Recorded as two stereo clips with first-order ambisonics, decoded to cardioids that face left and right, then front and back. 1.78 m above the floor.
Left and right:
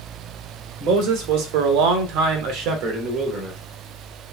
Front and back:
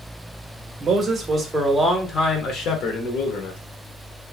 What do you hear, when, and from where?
0.8 s a man speaking: 120° right, 1.0 m; by 3.6 s 30° right, 1.1 m